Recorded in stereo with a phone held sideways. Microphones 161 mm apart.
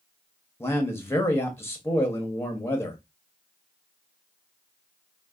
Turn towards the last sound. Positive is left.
turn(degrees=15)  # may be behind; listen again after turning